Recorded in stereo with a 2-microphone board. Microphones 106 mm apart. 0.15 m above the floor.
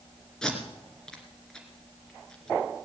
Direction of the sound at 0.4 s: 5° left (ahead or behind).